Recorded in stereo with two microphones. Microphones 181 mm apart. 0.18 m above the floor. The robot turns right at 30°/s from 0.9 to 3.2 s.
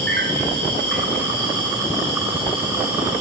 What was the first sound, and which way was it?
An insect, 70° right.